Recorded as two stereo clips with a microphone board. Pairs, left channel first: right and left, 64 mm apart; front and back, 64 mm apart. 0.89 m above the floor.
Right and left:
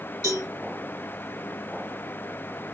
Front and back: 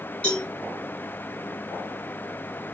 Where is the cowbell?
75° left, 2.5 m.